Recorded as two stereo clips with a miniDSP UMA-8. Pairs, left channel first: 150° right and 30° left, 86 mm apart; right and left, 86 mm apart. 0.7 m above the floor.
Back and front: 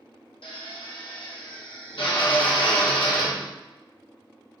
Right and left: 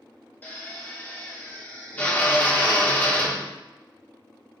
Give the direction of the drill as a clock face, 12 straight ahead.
5 o'clock.